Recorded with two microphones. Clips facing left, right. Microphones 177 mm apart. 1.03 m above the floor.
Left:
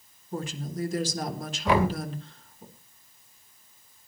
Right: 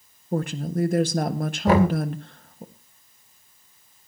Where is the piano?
No piano in this recording.